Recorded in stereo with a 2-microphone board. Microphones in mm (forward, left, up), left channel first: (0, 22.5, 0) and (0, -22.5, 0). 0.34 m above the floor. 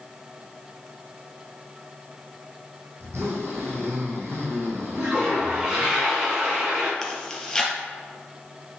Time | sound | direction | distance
3.0 | a zipper | 70° right (ahead or behind) | 3 m
5.0 | a toilet flushing | 15° right (ahead or behind) | 3.5 m
7.0 | chewing | 10° left (ahead or behind) | 2 m